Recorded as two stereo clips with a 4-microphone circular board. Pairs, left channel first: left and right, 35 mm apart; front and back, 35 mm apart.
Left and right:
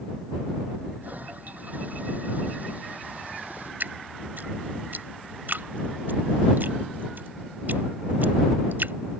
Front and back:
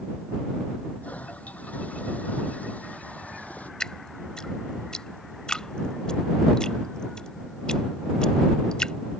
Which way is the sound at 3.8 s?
65° right.